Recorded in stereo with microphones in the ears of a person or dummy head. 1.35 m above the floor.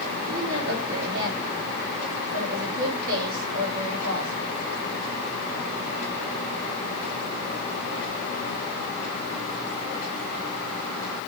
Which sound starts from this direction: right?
A woman speaking, at 0.3 s.